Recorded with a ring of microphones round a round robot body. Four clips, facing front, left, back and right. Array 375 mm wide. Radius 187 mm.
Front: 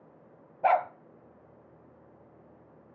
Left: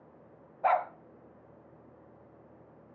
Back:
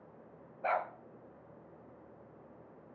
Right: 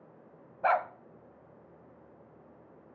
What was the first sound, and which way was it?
A dog barking, 25° right.